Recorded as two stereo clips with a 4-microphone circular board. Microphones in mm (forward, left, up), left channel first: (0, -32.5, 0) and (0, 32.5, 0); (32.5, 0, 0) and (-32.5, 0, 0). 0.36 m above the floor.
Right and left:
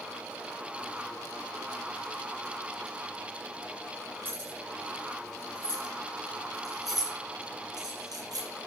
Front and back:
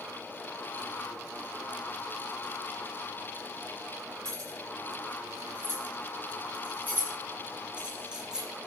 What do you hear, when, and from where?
4.2 s keys jangling: 140° left, 8 m; by 8.5 s 100° left, 6 m